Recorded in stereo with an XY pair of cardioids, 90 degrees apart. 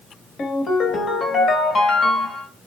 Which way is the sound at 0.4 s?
65° left.